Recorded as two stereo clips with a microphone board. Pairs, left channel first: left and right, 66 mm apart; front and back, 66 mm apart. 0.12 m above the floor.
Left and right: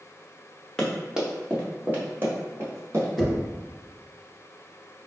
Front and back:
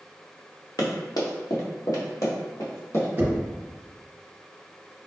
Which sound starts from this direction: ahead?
Running footsteps, at 0.8 s.